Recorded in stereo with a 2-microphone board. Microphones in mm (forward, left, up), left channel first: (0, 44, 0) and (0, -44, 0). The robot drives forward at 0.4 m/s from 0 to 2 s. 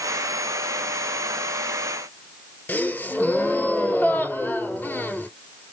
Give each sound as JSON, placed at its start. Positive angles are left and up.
{"t": 2.7, "sound": "a gasp", "side_deg": 20, "distance_m": 0.5}